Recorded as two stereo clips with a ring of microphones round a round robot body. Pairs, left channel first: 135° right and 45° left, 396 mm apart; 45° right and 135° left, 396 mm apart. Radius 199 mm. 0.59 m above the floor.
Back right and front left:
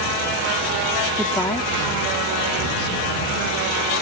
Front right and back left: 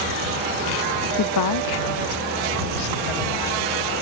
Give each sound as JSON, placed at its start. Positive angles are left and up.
{"t": 1.2, "sound": "a woman speaking", "azimuth_deg": -30}